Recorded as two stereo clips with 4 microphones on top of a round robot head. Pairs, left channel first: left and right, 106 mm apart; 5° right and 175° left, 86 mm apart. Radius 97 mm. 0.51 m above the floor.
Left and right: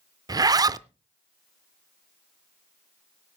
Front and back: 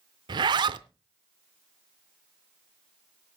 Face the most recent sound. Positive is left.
turn(degrees=-145)